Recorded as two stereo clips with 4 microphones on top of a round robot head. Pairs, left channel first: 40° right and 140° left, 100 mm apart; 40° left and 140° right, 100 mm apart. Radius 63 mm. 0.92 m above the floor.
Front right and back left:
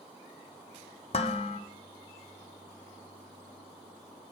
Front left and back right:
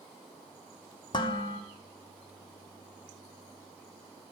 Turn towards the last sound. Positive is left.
turn(degrees=-10)